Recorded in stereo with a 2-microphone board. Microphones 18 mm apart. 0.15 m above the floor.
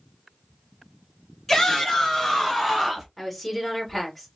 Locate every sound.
1.5 s a shout: 15° left (ahead or behind), 1.7 m; by 3.1 s 10° right (ahead or behind), 1.9 m
3.2 s a woman speaking: 10° left (ahead or behind), 1.6 m